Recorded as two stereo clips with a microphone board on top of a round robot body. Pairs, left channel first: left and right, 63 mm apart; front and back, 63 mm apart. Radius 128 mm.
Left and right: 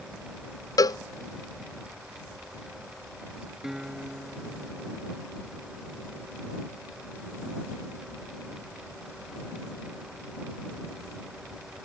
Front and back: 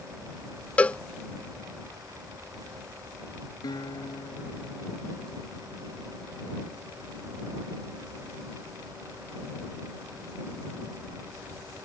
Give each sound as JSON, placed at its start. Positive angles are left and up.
{"t": 0.8, "sound": "a cowbell", "azimuth_deg": 70}
{"t": 3.6, "sound": "a guitar", "azimuth_deg": -5}